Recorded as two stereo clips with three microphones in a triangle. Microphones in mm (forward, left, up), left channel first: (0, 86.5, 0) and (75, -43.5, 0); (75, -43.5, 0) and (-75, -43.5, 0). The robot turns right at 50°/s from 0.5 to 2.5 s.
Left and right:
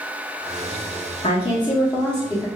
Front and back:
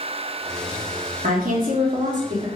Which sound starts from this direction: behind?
A woman speaking, at 1.2 s.